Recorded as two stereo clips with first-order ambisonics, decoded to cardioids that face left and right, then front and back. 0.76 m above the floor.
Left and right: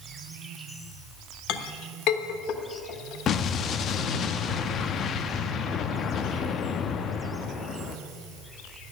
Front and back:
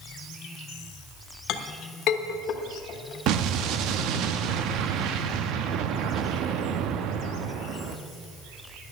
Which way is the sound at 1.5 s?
50° left.